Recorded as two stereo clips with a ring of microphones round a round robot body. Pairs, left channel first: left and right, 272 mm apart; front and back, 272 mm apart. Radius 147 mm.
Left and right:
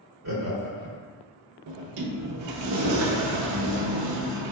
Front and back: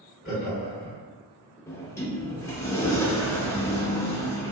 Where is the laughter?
90° right, 1.6 m.